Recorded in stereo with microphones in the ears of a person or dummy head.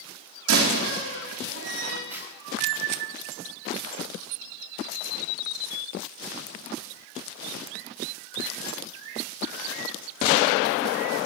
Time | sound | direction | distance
0.5 | a door slam | 80° right | 3.5 m
2.1 | a zipper | 5° right (ahead or behind) | 5 m